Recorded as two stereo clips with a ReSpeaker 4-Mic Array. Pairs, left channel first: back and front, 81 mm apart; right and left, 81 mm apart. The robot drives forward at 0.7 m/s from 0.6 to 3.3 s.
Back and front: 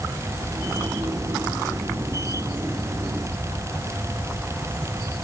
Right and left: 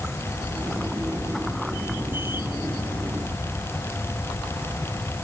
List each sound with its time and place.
Only background noise.